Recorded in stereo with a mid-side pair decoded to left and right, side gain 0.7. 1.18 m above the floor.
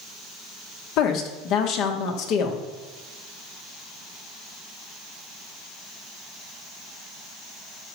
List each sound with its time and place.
1.0 s a woman speaking: 60° left, 1.8 m